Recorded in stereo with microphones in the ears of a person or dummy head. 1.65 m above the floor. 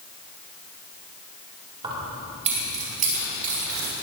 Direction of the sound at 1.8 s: 30° right (ahead or behind).